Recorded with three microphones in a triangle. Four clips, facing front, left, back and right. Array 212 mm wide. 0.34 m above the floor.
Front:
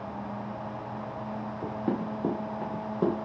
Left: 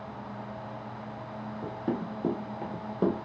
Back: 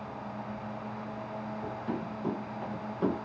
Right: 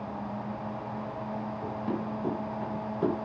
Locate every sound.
1.6 s running footsteps: 10° left, 1.0 m; by 3.1 s 55° left, 1.2 m